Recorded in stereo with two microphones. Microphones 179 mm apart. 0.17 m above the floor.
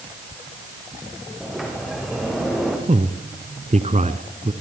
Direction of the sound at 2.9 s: 40° right (ahead or behind).